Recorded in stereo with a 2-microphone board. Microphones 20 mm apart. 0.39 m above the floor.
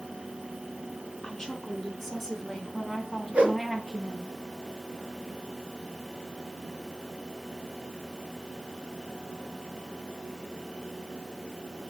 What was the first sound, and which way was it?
A woman speaking, 5° left (ahead or behind).